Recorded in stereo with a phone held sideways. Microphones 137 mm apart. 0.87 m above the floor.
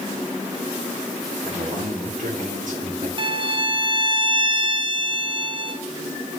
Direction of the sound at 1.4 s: 70° right (ahead or behind).